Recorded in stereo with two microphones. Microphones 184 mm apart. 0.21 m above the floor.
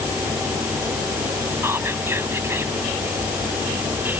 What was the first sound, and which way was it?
Whispering, 15° right (ahead or behind).